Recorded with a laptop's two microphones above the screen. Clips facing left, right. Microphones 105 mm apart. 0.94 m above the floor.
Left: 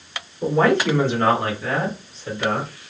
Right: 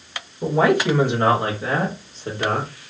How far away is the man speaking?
About 1.5 m.